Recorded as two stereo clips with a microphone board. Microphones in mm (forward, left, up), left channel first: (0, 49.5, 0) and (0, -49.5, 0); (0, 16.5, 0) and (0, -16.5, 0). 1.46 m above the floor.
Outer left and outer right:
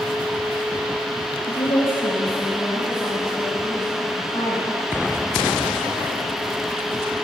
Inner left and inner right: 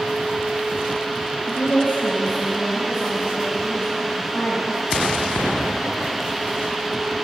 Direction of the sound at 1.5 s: 90° left.